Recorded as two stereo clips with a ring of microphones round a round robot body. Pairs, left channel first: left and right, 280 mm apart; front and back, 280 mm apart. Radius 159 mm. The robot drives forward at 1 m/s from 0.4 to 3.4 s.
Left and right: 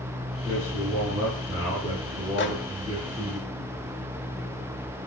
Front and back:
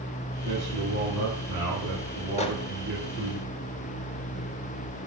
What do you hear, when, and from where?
0.5 s a man speaking: 165° right, 7 m; by 3.4 s 170° right, 10 m
2.4 s a microwave: 60° left, 1.5 m; by 2.5 s 65° left, 1.5 m